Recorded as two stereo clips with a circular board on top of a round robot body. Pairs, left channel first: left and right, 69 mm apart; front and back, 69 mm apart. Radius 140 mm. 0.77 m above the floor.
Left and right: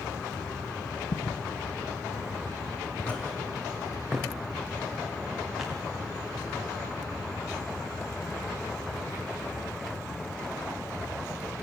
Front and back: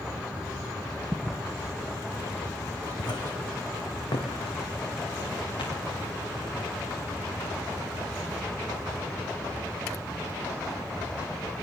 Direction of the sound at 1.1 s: 90° left.